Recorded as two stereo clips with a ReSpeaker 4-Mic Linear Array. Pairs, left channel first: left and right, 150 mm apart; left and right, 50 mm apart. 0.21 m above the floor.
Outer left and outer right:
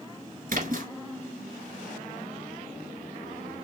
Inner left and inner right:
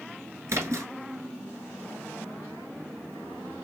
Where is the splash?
70° right (ahead or behind), 1.5 m.